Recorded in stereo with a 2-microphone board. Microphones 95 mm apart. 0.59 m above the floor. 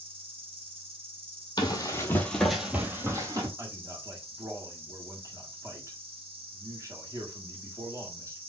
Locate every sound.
0.0 s an insect: 90° right, 1.2 m
1.6 s running footsteps: 45° left (ahead or behind), 1.0 m; by 3.5 s 35° right (ahead or behind), 1.2 m
3.6 s a man speaking: 35° right (ahead or behind), 1.4 m